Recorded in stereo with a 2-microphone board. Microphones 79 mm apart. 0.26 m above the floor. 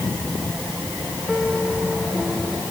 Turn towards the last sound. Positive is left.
turn(degrees=0)  # may be behind; listen again after turning